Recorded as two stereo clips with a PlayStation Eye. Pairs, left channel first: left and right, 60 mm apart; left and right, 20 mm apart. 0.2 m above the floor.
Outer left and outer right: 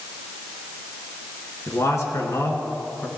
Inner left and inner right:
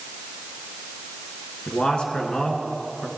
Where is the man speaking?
55° left (ahead or behind), 2.5 m.